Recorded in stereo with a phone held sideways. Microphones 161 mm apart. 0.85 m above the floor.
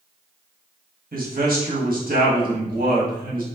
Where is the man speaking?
65° right (ahead or behind), 1.3 m.